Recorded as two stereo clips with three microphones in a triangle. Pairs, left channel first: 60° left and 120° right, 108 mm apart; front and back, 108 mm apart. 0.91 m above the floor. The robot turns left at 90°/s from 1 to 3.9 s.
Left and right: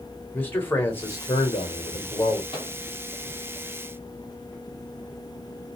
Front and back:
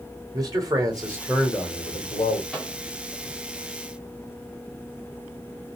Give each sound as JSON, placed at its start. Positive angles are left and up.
{"t": 0.3, "sound": "a man speaking", "azimuth_deg": 130, "distance_m": 1.2}
{"t": 2.5, "sound": "a microwave", "azimuth_deg": 85, "distance_m": 1.4}